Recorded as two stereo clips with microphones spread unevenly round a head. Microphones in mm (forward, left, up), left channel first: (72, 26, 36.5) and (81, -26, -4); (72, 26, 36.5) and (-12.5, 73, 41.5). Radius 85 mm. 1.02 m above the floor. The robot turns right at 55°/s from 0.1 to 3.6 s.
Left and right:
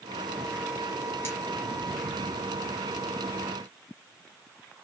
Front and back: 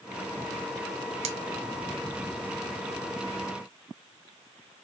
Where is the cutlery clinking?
160° left, 1.3 m; by 1.4 s 165° left, 1.3 m.